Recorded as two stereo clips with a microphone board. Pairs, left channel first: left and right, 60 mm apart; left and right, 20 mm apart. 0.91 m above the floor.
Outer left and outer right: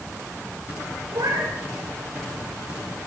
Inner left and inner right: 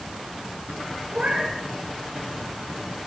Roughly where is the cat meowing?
Right.